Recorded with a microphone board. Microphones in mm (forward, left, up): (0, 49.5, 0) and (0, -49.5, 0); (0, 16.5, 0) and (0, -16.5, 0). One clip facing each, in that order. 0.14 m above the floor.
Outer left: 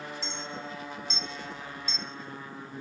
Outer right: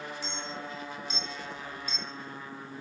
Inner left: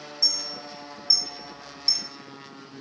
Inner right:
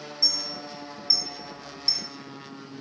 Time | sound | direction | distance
0.2 | a clink | 15° right (ahead or behind) | 1.3 m